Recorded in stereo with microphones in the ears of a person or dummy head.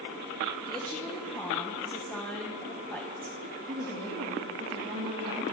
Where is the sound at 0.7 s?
10° left (ahead or behind), 1.3 m.